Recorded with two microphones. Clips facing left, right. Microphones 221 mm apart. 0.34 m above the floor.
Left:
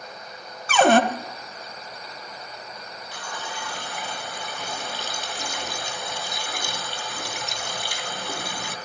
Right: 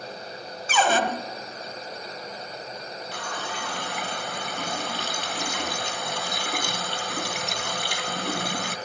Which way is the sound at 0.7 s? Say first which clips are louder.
Left 7 dB; 60° left (ahead or behind).